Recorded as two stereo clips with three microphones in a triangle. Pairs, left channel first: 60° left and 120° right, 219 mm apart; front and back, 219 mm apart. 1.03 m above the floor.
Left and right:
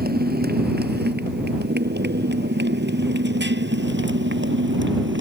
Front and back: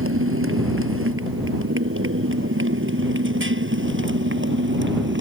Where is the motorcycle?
165° right; by 5.2 s 150° right.